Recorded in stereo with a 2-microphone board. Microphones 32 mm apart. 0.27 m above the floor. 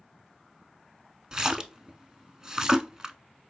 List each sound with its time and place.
1.3 s a splash: 20° right (ahead or behind), 0.5 m